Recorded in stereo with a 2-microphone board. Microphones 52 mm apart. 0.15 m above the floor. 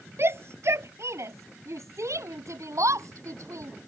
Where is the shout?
55° right (ahead or behind); by 3.7 s 75° right (ahead or behind).